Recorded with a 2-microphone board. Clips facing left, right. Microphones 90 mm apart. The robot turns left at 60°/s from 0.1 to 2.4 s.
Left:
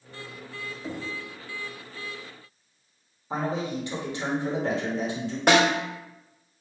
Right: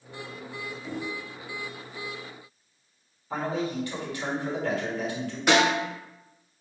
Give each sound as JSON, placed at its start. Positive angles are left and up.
{"t": 0.8, "sound": "knocking", "side_deg": 35, "distance_m": 1.0}
{"t": 3.3, "sound": "a man speaking", "side_deg": 25, "distance_m": 1.4}
{"t": 5.5, "sound": "a snare drum", "side_deg": 50, "distance_m": 1.5}